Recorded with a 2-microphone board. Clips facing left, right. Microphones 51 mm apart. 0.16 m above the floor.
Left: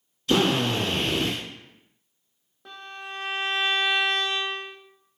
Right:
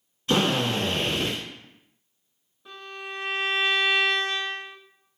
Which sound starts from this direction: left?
A violin, at 2.6 s.